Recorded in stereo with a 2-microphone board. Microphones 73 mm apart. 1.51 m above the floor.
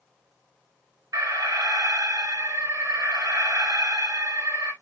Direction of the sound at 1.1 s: 55° right (ahead or behind).